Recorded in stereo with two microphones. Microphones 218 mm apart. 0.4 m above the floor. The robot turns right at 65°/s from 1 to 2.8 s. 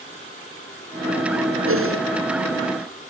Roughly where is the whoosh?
Right.